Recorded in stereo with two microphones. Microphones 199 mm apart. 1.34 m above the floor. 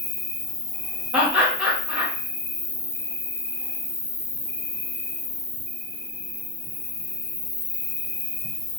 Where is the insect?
55° left (ahead or behind), 0.9 m.